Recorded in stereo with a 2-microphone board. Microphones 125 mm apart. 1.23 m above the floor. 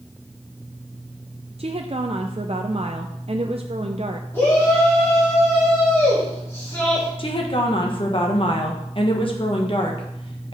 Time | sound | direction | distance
1.6 | a woman speaking | 55° right (ahead or behind) | 0.5 m
4.3 | a shout | 20° left (ahead or behind) | 2.5 m
7.2 | a woman speaking | 45° left (ahead or behind) | 1.4 m